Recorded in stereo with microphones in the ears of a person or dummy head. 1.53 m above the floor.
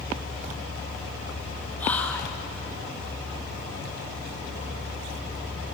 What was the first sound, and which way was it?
Whispering, 15° left (ahead or behind).